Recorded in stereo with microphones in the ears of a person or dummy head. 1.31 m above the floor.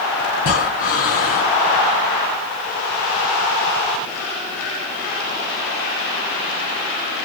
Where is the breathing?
45° left (ahead or behind), 1.7 m.